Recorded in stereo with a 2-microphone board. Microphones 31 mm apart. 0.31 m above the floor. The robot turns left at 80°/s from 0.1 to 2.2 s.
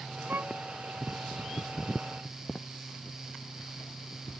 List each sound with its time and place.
0.3 s a violin: 75° right (ahead or behind)